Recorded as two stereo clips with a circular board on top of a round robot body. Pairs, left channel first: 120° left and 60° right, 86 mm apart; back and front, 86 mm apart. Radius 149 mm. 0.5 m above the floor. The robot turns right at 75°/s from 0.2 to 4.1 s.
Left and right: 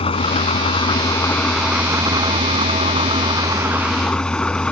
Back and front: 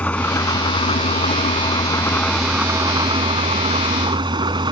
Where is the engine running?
105° left; by 4.7 s 40° left.